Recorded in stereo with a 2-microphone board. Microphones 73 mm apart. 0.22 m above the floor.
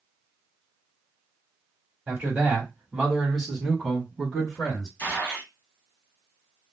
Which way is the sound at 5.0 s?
30° left (ahead or behind).